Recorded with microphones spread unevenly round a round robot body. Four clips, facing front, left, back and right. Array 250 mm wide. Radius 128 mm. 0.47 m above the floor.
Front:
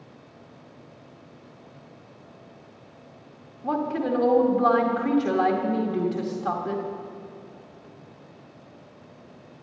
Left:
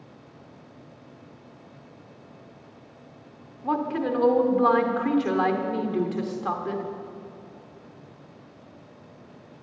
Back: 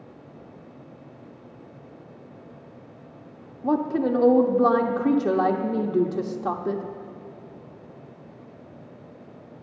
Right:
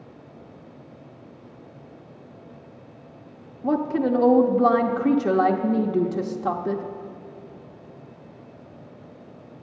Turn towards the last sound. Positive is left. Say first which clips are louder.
# right 4 dB, back 3 dB
turn(degrees=-140)